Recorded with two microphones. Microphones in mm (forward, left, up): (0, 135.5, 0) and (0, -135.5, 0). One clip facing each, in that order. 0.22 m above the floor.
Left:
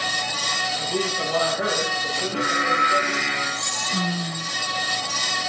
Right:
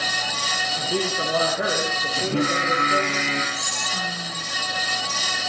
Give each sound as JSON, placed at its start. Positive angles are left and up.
{"t": 0.8, "sound": "a man speaking", "side_deg": -25, "distance_m": 9.5}
{"t": 2.2, "sound": "singing", "side_deg": -50, "distance_m": 7.0}
{"t": 3.5, "sound": "whispering", "side_deg": 35, "distance_m": 8.0}